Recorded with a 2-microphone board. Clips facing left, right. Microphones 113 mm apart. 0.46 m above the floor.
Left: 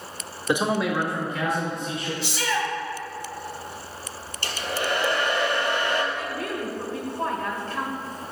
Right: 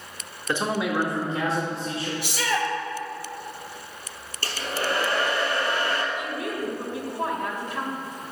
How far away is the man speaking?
About 1.1 m.